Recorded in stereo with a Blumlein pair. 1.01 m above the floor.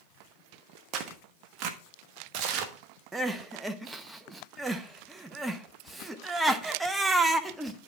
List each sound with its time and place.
0.9 s tearing paper: 35° right, 1.0 m
3.1 s crying: 10° right, 0.8 m